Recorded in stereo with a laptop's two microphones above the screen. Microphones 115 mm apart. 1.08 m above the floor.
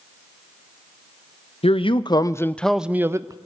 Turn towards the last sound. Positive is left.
turn(degrees=-35)  # may be behind; listen again after turning